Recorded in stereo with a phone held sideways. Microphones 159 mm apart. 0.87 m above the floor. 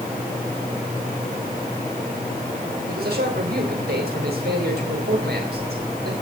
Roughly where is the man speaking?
Right.